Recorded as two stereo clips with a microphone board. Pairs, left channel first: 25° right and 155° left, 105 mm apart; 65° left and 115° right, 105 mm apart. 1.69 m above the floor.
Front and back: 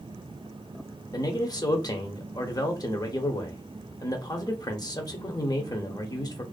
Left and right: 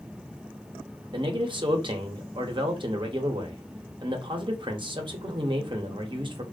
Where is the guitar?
I don't hear a guitar.